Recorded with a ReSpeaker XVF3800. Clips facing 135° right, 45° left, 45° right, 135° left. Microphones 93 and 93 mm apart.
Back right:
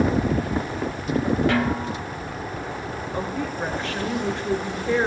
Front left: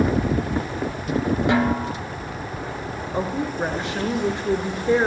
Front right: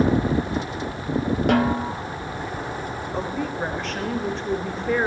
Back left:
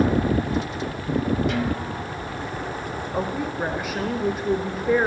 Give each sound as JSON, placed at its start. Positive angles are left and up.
{"t": 1.5, "sound": "a snare drum", "azimuth_deg": -25, "distance_m": 0.8}
{"t": 3.1, "sound": "a woman speaking", "azimuth_deg": 65, "distance_m": 0.8}